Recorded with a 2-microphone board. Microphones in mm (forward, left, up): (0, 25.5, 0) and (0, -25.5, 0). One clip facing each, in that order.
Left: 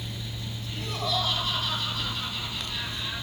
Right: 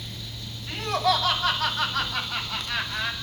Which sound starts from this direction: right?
Laughter, at 0.7 s.